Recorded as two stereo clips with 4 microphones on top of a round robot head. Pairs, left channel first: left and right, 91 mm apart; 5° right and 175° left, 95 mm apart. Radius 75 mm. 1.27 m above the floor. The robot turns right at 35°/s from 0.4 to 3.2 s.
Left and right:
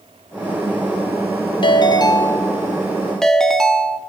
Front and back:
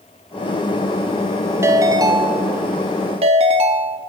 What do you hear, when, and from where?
1.6 s a ringtone: 120° left, 1.3 m; by 4.0 s 175° left, 1.3 m